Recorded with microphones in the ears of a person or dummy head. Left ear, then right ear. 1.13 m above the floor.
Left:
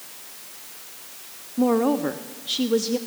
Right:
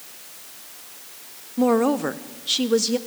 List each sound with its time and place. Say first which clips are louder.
1.6 s a woman speaking: right 1 dB; 20° right (ahead or behind), 0.7 m